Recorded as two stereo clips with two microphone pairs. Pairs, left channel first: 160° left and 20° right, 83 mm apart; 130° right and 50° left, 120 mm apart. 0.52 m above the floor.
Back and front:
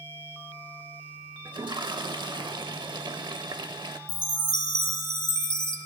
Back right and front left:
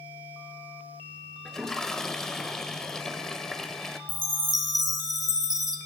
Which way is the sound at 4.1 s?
170° left.